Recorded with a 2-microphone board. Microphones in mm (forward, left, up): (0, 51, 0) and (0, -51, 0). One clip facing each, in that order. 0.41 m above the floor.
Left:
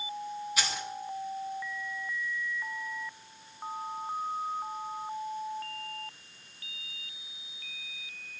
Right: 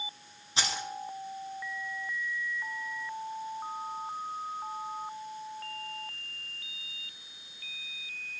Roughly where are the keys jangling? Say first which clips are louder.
Right 4 dB; right.